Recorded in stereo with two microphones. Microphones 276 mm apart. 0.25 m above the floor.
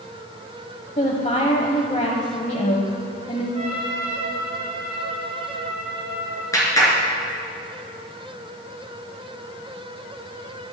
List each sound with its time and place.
1.0 s a woman speaking: 25° left (ahead or behind), 1.0 m
3.5 s a trumpet: 25° right (ahead or behind), 4 m
6.5 s a clap: 10° left (ahead or behind), 3 m